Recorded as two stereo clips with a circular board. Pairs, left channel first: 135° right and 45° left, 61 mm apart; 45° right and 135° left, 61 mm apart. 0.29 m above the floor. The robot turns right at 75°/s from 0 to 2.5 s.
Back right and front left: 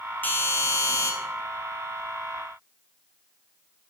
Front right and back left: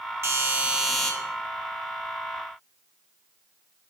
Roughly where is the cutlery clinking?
No cutlery clinking in this recording.